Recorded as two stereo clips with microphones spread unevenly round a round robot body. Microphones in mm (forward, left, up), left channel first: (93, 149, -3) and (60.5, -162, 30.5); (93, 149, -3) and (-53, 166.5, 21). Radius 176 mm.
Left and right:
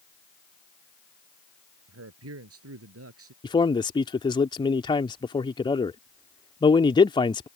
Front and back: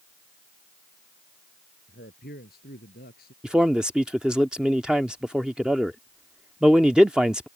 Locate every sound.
1.9 s a man speaking: 55° right; by 3.3 s 50° right
3.4 s a man speaking: 70° left